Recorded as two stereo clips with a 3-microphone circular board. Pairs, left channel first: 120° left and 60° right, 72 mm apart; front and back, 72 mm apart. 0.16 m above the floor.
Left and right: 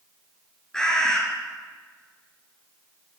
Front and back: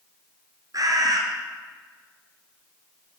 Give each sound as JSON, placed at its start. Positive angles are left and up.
{"t": 0.7, "sound": "a bird", "azimuth_deg": -160, "distance_m": 2.0}